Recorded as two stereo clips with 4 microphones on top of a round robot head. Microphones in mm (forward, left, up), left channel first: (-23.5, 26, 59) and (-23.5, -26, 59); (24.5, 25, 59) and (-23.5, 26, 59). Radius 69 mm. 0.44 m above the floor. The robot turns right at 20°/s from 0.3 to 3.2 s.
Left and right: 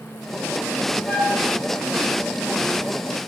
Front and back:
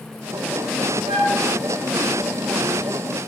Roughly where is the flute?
Behind.